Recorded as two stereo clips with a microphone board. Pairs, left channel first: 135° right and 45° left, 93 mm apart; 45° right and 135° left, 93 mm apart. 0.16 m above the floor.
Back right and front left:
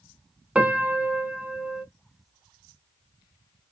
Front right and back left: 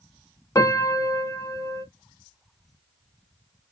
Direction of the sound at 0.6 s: 30° right.